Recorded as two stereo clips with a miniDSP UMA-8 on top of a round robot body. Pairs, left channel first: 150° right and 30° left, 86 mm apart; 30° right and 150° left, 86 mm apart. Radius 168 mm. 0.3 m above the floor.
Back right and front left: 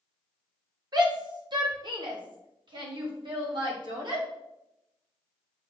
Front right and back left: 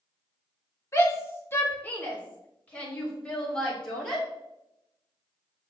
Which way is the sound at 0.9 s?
20° left.